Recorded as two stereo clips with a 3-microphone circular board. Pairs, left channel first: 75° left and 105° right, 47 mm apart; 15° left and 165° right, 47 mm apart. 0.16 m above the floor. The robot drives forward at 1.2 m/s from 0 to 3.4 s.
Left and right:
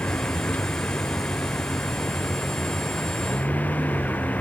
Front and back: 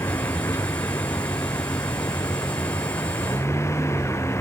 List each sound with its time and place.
0.0 s a vehicle: 20° left